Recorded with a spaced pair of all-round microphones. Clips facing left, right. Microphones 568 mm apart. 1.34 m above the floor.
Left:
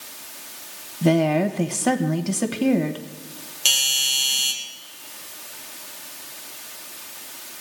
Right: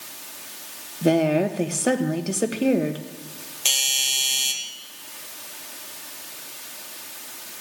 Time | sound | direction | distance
1.0 | a woman speaking | 25° left (ahead or behind) | 1.0 m
3.6 | a doorbell | 35° left (ahead or behind) | 1.8 m